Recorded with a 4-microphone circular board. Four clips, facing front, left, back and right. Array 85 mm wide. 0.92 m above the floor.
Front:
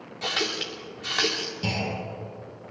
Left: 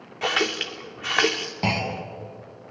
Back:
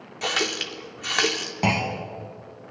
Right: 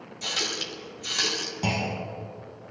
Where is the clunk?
155° left, 2 m.